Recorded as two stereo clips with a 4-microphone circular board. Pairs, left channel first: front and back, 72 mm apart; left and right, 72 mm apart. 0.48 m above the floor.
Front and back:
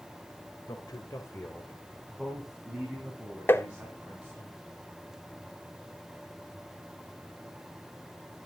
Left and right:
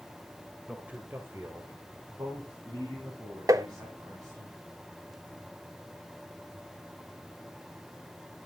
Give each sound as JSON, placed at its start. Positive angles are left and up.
{"t": 0.7, "sound": "a man speaking", "azimuth_deg": -10, "distance_m": 1.9}
{"t": 3.5, "sound": "tapping", "azimuth_deg": -60, "distance_m": 0.6}